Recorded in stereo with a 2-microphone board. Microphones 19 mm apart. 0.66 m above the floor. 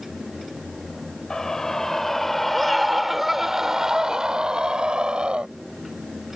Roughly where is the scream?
Left.